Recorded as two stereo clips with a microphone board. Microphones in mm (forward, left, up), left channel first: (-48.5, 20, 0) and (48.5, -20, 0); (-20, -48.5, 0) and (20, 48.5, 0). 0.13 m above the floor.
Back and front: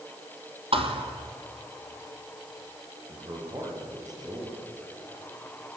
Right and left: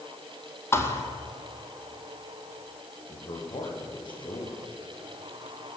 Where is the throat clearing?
No throat clearing in this recording.